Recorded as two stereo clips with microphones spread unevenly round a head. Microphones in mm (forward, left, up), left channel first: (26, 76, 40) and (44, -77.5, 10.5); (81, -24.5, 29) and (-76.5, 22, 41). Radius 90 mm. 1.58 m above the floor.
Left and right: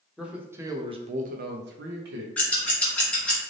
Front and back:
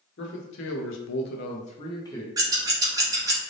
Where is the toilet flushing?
I don't hear a toilet flushing.